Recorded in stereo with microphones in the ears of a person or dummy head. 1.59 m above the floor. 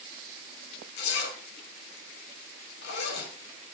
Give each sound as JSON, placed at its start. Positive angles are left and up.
{"t": 1.0, "sound": "a zipper", "side_deg": 70, "distance_m": 5.5}